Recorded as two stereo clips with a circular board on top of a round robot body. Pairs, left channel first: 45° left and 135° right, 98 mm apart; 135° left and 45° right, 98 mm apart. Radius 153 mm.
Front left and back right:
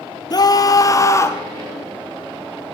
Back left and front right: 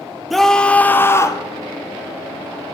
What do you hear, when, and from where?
0.3 s a scream: 45° left, 1.5 m; by 1.4 s 95° left, 1.5 m